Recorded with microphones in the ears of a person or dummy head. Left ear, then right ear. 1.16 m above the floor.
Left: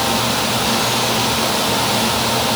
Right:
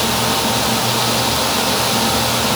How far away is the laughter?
I don't hear laughter.